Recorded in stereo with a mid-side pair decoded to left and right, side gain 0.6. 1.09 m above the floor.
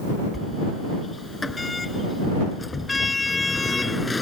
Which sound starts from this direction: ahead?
A sliding door, at 0.3 s.